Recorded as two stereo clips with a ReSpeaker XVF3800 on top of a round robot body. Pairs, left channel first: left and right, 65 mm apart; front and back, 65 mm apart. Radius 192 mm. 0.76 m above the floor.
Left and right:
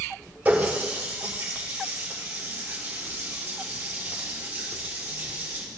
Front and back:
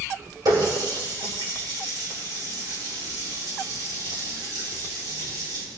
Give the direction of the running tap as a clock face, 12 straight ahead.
5 o'clock.